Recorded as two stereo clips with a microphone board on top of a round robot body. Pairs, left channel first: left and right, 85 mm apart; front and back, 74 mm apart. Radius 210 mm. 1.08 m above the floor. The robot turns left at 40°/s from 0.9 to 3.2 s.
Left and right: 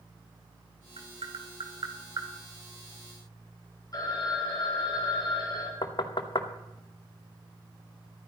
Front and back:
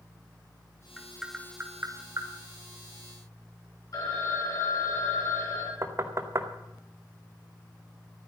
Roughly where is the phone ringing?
Ahead left.